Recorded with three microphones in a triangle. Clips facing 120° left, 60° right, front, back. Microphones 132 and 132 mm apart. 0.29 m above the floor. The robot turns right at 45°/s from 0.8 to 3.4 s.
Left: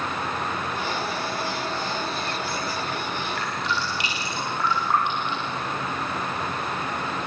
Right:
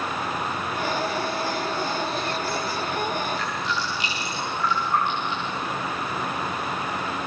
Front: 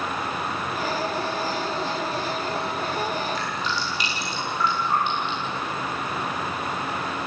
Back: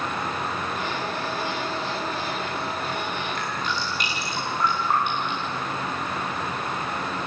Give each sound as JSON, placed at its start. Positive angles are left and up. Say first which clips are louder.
{"t": 3.4, "sound": "dripping", "louder": "even, front 1 dB", "azimuth_deg": 135, "distance_m": 8.0}